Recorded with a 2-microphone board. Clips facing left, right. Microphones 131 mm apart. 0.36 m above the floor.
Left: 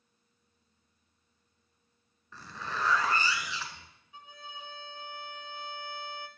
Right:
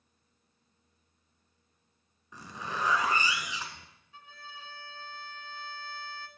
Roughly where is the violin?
Centre.